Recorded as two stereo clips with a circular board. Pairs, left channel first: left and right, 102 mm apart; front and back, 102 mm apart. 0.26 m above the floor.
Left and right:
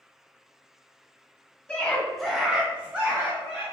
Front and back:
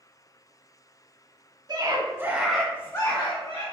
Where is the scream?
170° left, 1.5 m; by 3.6 s 20° right, 1.9 m.